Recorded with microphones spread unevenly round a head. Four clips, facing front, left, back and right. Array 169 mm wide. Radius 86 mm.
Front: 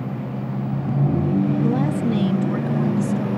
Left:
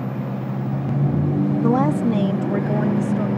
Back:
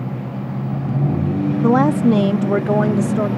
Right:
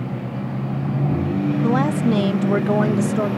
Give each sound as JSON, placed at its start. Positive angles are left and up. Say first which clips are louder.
{"t": 1.6, "sound": "a woman speaking", "louder": "left 1 dB, back 7 dB", "azimuth_deg": 170}